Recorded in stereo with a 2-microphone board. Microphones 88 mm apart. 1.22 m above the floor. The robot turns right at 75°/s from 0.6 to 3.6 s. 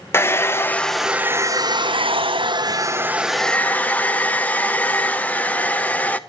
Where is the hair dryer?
150° left, 0.6 m; by 6.2 s 15° left, 0.6 m.